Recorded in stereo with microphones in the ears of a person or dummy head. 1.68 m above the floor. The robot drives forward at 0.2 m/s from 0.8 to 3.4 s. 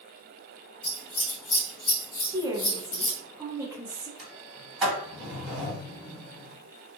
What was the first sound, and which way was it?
Scissors, 45° left (ahead or behind).